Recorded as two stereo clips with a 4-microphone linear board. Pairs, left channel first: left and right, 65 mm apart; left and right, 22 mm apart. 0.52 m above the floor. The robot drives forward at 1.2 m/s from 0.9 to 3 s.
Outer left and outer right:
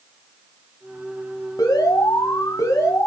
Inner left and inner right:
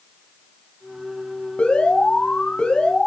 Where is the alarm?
75° left (ahead or behind), 3 m; by 3.1 s 50° left (ahead or behind), 3.5 m.